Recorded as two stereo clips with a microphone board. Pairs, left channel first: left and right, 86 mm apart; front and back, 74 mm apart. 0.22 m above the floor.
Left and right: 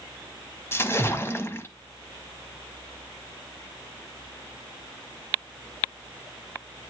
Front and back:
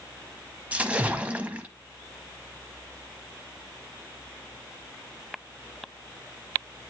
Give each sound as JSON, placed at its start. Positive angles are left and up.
{"t": 0.7, "sound": "a splash", "azimuth_deg": 125, "distance_m": 0.8}